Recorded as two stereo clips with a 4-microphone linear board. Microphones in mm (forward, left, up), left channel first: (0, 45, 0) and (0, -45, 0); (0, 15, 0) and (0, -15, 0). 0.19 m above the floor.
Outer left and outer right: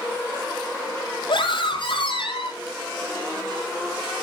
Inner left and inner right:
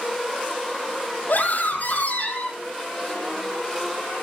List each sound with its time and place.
1.3 s a scream: 70° left (ahead or behind), 5.5 m